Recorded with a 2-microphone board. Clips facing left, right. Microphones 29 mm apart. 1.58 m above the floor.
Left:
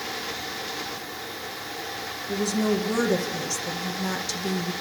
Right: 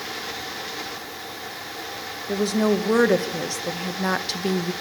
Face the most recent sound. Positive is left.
turn(degrees=-40)  # may be behind; listen again after turning